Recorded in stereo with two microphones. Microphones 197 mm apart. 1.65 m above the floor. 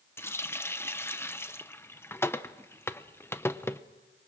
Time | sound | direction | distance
0.2 | a running tap | 10° left (ahead or behind) | 0.7 m